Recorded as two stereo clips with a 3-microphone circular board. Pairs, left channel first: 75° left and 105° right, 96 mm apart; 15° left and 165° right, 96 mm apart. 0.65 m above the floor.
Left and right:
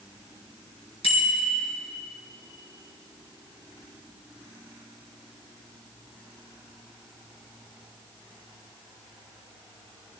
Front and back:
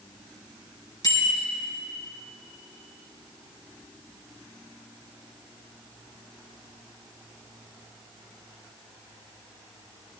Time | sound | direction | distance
1.0 | a bicycle bell | 60° left | 4 m